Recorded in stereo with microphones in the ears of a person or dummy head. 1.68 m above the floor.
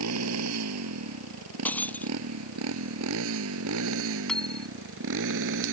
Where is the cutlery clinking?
10° left (ahead or behind).